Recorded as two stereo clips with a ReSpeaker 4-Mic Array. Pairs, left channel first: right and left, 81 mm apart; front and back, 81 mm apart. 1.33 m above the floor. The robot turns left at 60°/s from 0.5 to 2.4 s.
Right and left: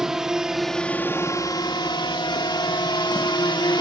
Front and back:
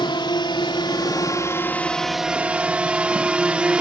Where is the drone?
5° left; by 3.8 s 105° right.